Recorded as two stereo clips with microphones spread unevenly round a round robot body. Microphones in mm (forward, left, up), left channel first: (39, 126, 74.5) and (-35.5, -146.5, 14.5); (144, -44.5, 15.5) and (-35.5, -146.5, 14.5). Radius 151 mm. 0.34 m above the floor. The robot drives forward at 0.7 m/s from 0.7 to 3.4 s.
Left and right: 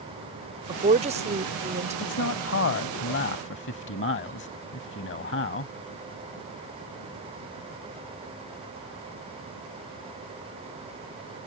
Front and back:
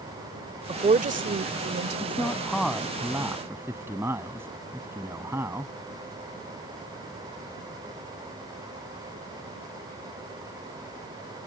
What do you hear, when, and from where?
0.7 s a woman speaking: 120° right; by 2.4 s 160° right
2.0 s a man speaking: 110° left; by 5.7 s 130° left